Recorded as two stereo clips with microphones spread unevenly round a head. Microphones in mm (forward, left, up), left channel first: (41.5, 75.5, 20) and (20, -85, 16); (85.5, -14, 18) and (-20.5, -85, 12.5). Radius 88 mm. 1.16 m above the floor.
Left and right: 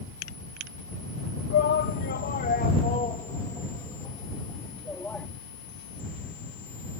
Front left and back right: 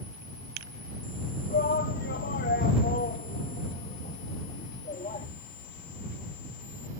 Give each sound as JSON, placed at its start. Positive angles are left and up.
{"t": 1.5, "sound": "a shout", "azimuth_deg": 70}